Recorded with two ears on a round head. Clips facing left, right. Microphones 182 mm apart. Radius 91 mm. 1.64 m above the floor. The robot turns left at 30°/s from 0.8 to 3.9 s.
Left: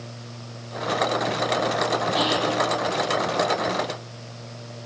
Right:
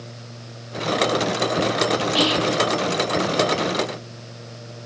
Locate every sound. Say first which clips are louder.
2.1 s whispering: right 3 dB; 35° right (ahead or behind), 0.6 m; by 2.6 s 30° right (ahead or behind), 0.6 m